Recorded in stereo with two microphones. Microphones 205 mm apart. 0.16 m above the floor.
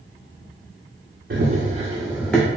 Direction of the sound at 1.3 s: 60° right (ahead or behind).